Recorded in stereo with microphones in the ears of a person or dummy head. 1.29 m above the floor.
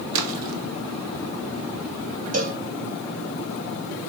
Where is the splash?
65° right (ahead or behind), 2 m.